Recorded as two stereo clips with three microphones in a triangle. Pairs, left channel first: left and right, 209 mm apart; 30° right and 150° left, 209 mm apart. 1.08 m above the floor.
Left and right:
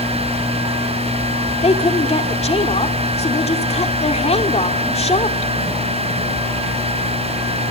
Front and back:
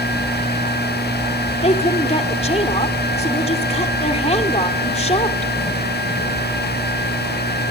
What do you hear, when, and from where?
1.6 s a woman speaking: 30° left, 2.5 m